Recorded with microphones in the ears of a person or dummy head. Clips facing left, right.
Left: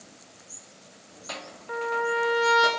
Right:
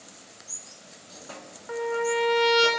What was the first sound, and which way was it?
A trumpet, 10° left (ahead or behind).